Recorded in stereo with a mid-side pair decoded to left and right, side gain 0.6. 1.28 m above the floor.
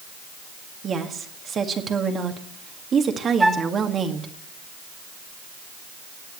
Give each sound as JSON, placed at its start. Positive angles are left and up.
{"t": 0.8, "sound": "a woman speaking", "azimuth_deg": -35, "distance_m": 1.9}
{"t": 3.4, "sound": "a flute", "azimuth_deg": -10, "distance_m": 0.9}